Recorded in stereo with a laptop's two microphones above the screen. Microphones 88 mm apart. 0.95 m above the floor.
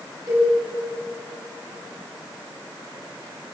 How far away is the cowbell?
About 7 m.